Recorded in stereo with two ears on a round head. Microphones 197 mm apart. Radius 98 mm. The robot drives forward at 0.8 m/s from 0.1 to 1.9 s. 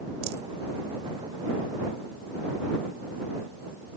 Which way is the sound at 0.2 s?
45° right (ahead or behind).